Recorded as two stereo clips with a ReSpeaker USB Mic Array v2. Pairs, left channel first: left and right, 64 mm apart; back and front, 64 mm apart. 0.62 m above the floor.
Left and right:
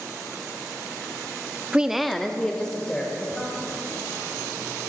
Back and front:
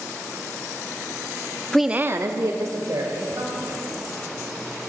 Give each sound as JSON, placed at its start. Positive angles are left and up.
{"t": 1.7, "sound": "a woman speaking", "azimuth_deg": -120, "distance_m": 0.5}